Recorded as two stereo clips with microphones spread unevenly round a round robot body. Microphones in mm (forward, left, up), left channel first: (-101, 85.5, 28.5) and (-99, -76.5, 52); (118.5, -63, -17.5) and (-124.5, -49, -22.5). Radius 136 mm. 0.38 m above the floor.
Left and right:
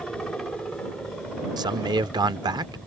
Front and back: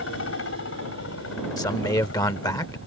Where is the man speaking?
55° right.